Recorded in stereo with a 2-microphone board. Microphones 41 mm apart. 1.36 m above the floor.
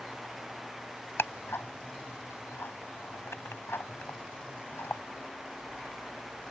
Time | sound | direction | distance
1.2 | ticking | 80° left | ?